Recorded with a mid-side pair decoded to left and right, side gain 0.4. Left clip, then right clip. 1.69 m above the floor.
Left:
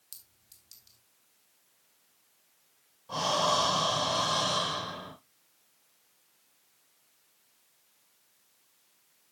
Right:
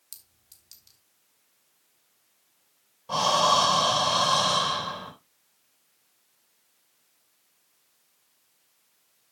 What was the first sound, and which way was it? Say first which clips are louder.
A clink: right 2 dB; 25° right.